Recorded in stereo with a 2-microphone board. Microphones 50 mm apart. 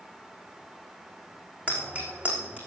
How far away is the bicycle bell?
About 5 m.